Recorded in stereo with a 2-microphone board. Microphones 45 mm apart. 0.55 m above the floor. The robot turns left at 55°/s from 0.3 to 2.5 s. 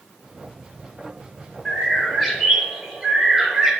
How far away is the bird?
About 0.9 m.